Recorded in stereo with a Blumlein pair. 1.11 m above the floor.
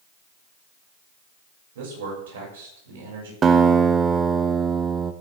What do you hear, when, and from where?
1.8 s a man speaking: 60° right, 6 m
3.4 s a guitar: 20° right, 1.1 m